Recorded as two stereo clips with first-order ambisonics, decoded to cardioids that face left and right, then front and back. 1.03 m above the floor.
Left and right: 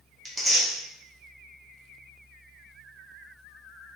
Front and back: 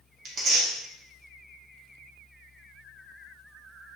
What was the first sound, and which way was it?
Tearing paper, 160° right.